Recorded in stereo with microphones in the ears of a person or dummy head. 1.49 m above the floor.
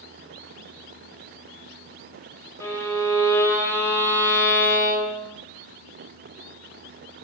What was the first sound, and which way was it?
A violin, 10° left (ahead or behind).